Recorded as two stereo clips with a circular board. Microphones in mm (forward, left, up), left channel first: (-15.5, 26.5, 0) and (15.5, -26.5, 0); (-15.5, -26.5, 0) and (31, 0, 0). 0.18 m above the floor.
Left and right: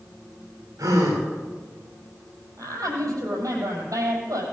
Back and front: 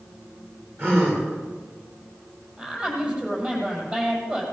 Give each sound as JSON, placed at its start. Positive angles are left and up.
{"t": 0.8, "sound": "a gasp", "azimuth_deg": -25, "distance_m": 7.5}
{"t": 2.6, "sound": "a woman speaking", "azimuth_deg": -35, "distance_m": 5.5}